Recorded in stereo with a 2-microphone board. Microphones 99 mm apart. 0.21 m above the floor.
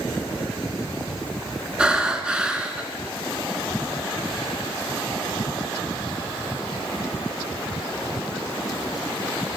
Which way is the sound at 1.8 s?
10° right (ahead or behind).